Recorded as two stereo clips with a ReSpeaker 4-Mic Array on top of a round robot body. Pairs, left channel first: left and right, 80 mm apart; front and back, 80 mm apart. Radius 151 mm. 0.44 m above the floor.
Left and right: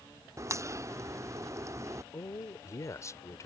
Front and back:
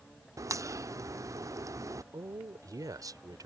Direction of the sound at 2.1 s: 140° left.